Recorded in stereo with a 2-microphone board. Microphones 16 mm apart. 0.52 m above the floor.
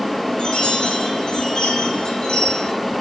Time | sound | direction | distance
0.4 | a chime | 75° left (ahead or behind) | 7 m